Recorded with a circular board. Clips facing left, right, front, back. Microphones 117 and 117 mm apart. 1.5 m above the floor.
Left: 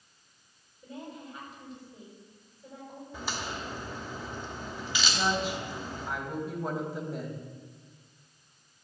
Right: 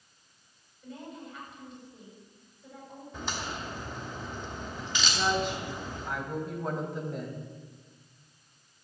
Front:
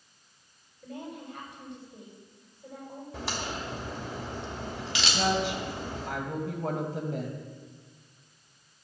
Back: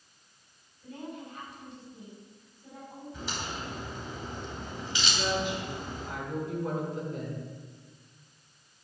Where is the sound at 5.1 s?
5° left, 2.5 m.